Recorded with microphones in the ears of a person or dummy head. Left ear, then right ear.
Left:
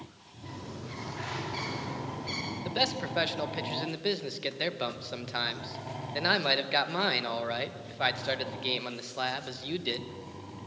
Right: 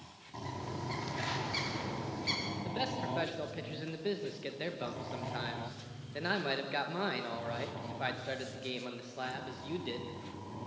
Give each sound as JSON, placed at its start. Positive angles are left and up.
{"t": 0.4, "sound": "a bird", "side_deg": -25, "distance_m": 5.0}
{"t": 2.6, "sound": "a man speaking", "side_deg": 30, "distance_m": 1.5}